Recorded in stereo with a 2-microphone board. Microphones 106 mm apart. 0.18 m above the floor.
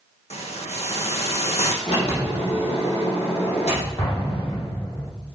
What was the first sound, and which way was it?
A hiss, 85° left.